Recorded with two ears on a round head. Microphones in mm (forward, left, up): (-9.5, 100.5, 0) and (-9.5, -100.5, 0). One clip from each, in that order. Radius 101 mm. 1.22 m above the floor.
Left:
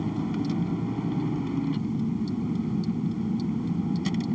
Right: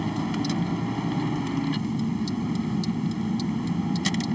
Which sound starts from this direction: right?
A vehicle, at 0.0 s.